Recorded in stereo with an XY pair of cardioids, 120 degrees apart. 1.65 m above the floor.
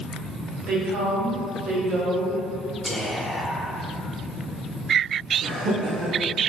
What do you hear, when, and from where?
0.7 s a woman speaking: 65° right, 1.2 m
2.9 s whispering: straight ahead, 0.7 m
5.4 s laughter: 45° right, 0.6 m